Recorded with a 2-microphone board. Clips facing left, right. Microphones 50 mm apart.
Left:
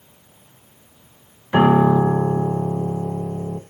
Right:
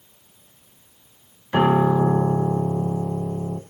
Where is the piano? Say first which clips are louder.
Left 3 dB; 10° left (ahead or behind), 1.0 m.